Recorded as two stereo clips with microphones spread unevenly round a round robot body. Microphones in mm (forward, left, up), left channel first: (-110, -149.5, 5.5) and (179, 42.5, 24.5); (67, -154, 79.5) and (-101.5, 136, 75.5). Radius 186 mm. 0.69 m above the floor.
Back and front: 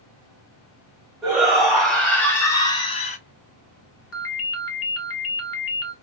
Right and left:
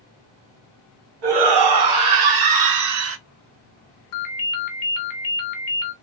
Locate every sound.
1.2 s a shout: 125° left, 2.5 m; by 3.2 s 160° left, 0.9 m
4.1 s a ringtone: 95° right, 1.4 m